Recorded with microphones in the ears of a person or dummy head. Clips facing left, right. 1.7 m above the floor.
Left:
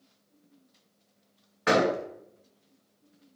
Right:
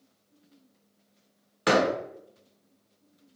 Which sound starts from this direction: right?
A door slam, at 1.7 s.